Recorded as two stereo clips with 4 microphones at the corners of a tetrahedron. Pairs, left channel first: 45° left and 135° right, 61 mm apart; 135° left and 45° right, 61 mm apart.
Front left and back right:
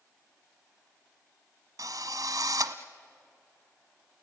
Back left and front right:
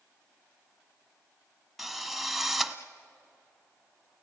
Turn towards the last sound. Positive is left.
turn(degrees=-135)